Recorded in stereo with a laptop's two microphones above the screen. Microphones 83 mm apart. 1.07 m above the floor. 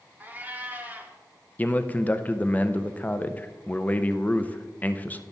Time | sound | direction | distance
0.2 | a cat meowing | 25° right (ahead or behind) | 1.5 m
1.6 | a man speaking | 20° left (ahead or behind) | 0.6 m